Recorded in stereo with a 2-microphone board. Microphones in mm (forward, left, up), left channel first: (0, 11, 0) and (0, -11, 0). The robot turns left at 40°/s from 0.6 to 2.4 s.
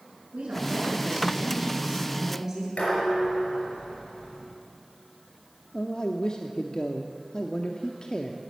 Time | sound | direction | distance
0.3 | a woman speaking | 85° right | 6.5 m
2.8 | dishes clattering | 90° left | 6 m
5.7 | a man speaking | 40° left (ahead or behind) | 0.9 m